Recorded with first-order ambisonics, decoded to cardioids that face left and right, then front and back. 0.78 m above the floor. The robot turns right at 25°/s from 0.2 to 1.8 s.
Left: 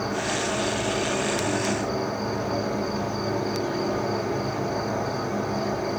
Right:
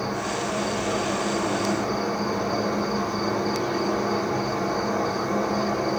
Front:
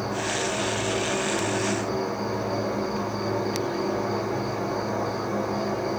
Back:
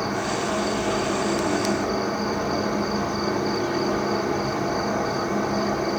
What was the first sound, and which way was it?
An insect, 175° left.